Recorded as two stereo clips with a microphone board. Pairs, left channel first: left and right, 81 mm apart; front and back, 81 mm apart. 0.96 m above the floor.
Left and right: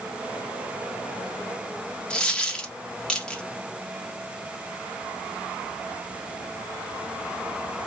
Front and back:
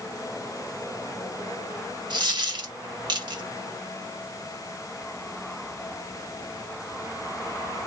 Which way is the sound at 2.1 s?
165° left.